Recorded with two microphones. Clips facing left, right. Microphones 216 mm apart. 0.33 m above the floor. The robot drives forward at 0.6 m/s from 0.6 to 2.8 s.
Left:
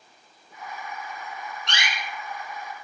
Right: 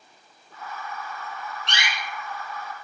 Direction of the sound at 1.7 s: 55° right (ahead or behind).